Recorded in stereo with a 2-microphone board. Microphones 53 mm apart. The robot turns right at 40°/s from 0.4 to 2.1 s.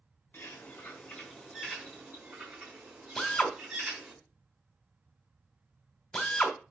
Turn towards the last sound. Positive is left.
turn(degrees=5)  # may be behind; listen again after turning